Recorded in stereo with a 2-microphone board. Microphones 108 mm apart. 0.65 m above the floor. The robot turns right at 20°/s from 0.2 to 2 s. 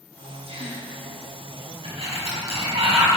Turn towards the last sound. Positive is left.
turn(degrees=-70)  # may be behind; listen again after turning